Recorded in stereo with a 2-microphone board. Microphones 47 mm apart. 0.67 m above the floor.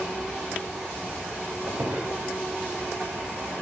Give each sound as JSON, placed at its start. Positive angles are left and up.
{"t": 1.7, "sound": "a squeak", "side_deg": -45, "distance_m": 0.6}